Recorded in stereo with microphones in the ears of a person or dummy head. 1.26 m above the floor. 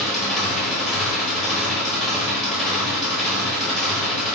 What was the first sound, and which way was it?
An engine running, centre (ahead or behind).